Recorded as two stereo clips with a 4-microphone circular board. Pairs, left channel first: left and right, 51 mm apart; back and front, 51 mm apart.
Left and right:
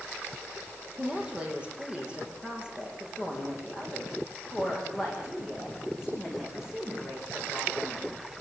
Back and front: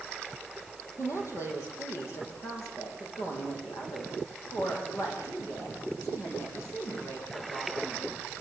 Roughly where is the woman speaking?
Behind.